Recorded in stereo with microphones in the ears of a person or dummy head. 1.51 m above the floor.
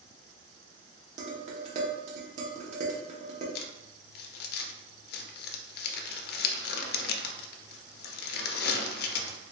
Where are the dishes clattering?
45° right (ahead or behind), 1.1 m.